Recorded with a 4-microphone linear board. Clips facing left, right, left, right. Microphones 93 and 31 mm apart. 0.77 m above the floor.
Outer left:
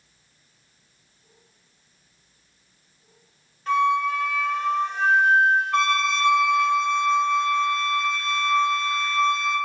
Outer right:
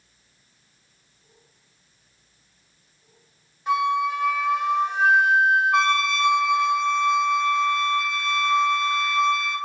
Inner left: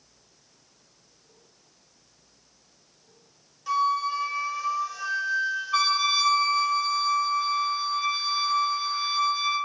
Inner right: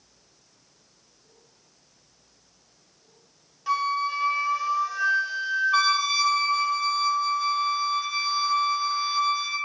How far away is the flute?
About 0.6 m.